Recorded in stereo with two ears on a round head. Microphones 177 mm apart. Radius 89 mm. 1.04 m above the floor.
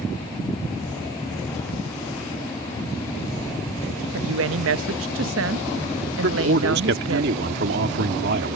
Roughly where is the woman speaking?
Right.